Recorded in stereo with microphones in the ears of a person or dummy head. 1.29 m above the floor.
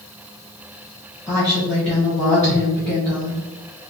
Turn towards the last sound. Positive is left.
turn(degrees=15)  # may be behind; listen again after turning